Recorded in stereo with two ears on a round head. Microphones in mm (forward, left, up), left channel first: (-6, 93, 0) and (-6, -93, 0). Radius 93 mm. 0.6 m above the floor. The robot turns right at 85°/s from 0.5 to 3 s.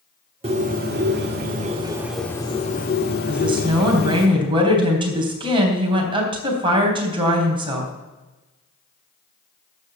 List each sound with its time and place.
0.4 s a bird: 140° right, 2.0 m; by 4.3 s 70° left, 2.0 m
3.3 s a woman speaking: 25° right (ahead or behind), 3.5 m